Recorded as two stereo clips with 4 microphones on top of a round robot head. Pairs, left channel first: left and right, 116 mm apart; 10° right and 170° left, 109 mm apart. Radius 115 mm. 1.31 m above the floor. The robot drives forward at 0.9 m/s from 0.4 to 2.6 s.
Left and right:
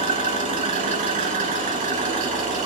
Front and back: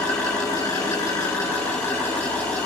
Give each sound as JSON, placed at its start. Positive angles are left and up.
{"t": 0.0, "sound": "an engine running", "azimuth_deg": -70, "distance_m": 8.0}